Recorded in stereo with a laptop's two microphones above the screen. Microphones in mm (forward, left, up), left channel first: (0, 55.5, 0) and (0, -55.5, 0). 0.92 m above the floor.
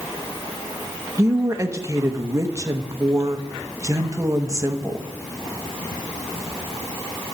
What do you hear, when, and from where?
1.2 s a woman speaking: 25° right (ahead or behind), 0.9 m